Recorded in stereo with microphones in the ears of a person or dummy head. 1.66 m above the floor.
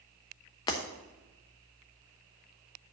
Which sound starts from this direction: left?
Breaking glass, at 0.7 s.